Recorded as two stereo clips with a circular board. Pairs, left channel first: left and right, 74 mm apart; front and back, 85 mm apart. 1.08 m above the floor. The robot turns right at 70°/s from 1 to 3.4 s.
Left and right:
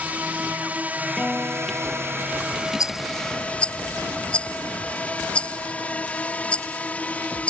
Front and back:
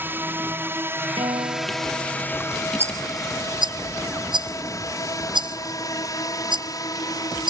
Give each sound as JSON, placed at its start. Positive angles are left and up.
{"t": 0.0, "sound": "a drone", "azimuth_deg": -140}
{"t": 1.2, "sound": "a guitar", "azimuth_deg": 170}
{"t": 2.8, "sound": "a rattle", "azimuth_deg": 120}